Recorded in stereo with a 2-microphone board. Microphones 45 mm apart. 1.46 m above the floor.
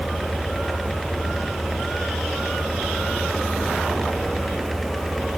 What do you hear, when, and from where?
Only background noise.